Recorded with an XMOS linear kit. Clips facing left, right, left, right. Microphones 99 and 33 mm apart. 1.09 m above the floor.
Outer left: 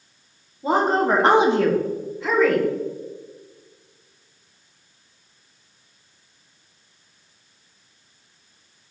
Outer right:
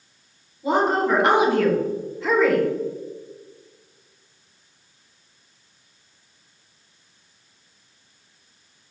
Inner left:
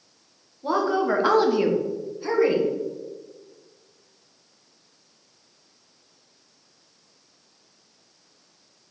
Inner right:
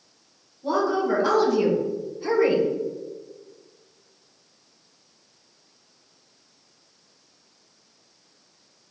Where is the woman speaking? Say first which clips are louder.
Outer left 1 dB, even; 35° left (ahead or behind), 0.9 m; by 2.6 s 5° right (ahead or behind), 1.1 m.